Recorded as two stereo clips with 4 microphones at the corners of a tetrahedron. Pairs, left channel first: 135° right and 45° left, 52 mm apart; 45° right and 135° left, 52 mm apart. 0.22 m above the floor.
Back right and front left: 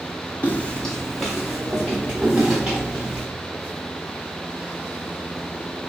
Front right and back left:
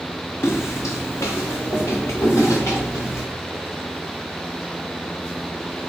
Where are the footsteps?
80° right, 0.7 m; by 3.2 s 20° right, 2 m.